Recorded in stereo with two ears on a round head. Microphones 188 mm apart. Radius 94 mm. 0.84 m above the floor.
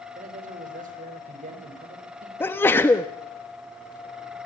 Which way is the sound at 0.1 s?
40° right (ahead or behind).